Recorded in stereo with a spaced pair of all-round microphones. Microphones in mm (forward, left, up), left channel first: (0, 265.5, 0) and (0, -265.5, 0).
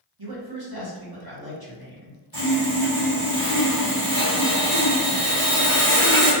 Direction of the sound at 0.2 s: 45° right (ahead or behind).